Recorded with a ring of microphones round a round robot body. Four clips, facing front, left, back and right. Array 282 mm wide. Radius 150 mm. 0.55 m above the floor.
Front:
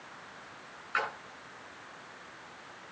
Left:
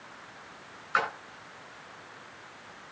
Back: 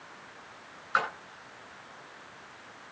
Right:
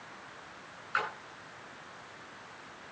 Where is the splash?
145° left, 9 m.